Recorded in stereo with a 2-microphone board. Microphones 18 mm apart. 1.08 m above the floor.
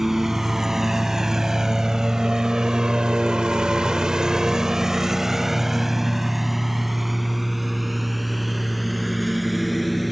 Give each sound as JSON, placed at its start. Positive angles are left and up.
{"t": 0.0, "sound": "a lawn mower", "side_deg": -20}